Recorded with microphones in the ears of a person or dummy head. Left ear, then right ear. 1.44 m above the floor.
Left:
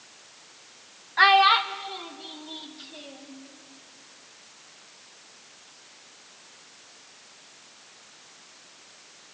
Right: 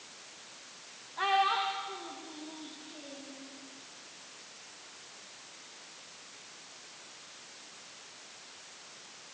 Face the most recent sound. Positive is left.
turn(degrees=75)  # may be behind; listen again after turning